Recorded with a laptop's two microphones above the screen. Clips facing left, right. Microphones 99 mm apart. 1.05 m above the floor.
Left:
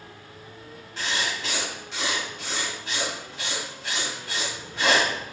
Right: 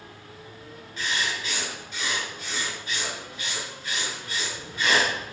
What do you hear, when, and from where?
1.0 s writing: 80° left, 1.8 m